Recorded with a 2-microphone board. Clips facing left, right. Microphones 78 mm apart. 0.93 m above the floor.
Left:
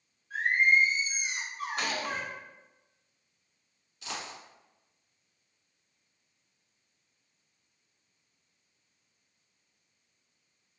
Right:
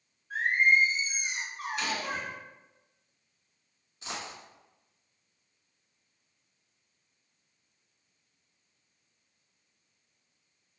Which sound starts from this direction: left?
A gunshot, at 1.8 s.